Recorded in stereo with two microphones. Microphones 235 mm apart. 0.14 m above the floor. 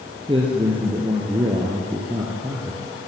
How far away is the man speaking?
About 3.5 m.